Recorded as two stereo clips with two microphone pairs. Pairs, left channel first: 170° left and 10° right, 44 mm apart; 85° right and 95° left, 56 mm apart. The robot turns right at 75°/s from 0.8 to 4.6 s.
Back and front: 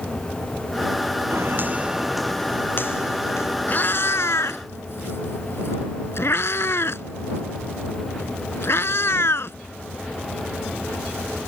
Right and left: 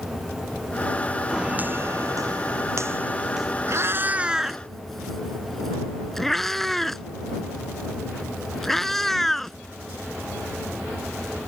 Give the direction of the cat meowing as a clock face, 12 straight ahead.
8 o'clock.